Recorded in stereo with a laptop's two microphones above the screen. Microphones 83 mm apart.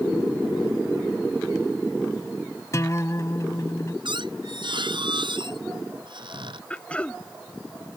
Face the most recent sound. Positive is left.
turn(degrees=15)  # may be behind; listen again after turning